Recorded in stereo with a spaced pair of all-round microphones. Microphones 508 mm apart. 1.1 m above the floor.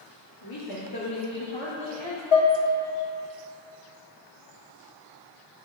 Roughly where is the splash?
I don't hear a splash.